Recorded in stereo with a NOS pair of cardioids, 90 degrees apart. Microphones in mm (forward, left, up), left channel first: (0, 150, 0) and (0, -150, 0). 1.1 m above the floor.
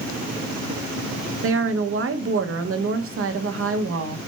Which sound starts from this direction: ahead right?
A woman speaking, at 1.4 s.